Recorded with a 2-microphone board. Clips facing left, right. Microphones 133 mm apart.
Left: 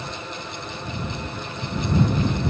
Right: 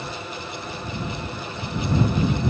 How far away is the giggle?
No giggle in this recording.